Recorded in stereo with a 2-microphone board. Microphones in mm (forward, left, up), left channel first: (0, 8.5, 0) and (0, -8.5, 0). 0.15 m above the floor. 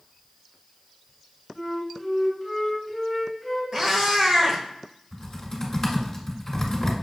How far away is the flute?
About 1.8 m.